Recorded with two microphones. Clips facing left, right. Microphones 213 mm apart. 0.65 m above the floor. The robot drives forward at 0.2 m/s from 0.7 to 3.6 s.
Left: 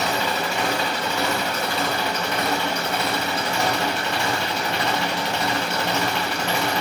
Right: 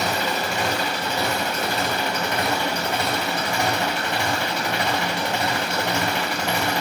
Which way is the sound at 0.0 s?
45° right (ahead or behind).